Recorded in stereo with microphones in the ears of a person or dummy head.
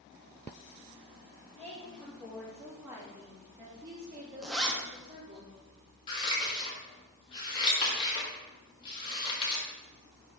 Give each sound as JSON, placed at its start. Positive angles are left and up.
{"t": 1.6, "sound": "a woman speaking", "side_deg": 10, "distance_m": 1.6}
{"t": 4.4, "sound": "a zipper", "side_deg": 0, "distance_m": 1.0}
{"t": 6.1, "sound": "scissors", "side_deg": 30, "distance_m": 1.9}